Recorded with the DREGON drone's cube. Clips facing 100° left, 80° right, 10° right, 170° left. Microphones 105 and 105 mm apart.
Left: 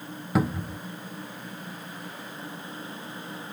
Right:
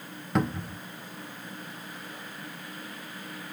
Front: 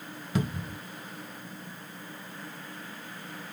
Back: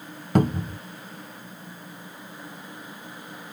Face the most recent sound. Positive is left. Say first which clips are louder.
# left 2 dB, back 9 dB
turn(degrees=-175)